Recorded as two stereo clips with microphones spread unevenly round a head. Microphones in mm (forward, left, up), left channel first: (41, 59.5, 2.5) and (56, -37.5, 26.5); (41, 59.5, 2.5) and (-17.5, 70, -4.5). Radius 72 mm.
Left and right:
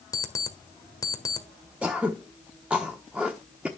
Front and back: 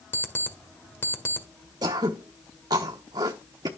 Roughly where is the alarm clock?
Ahead left.